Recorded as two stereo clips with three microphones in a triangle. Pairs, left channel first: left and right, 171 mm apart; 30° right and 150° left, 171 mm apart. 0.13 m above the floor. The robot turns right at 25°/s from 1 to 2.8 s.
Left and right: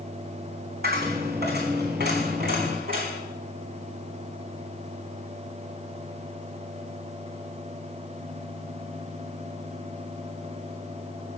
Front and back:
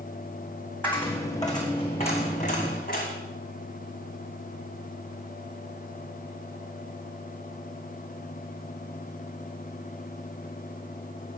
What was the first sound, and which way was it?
A dropped coin, 110° right.